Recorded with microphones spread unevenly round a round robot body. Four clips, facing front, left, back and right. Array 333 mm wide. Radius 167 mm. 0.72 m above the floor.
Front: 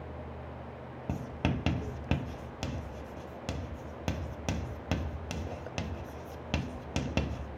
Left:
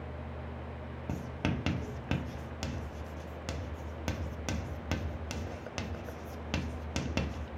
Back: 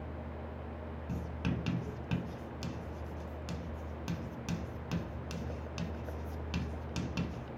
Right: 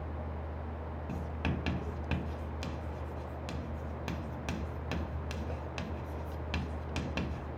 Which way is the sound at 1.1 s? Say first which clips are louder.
Left 3 dB, front 5 dB; 30° left.